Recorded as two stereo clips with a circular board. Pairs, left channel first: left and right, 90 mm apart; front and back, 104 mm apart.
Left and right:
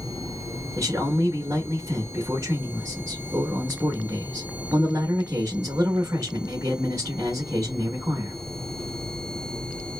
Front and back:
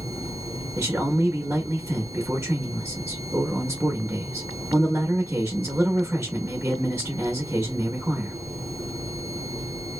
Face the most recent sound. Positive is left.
turn(degrees=-125)